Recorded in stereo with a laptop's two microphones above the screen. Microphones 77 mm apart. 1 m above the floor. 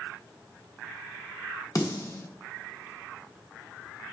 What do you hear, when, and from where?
1.8 s a snare drum: 45° left (ahead or behind), 1.0 m